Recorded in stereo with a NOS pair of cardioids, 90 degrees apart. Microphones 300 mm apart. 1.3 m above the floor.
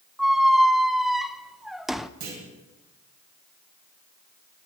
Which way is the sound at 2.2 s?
65° right.